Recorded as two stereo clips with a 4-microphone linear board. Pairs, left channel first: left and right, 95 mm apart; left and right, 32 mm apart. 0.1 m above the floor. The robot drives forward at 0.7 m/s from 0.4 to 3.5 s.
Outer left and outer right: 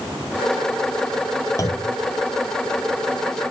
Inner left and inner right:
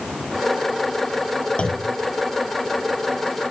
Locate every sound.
1.6 s a clunk: 35° left (ahead or behind), 1.5 m; by 2.0 s 30° left (ahead or behind), 1.7 m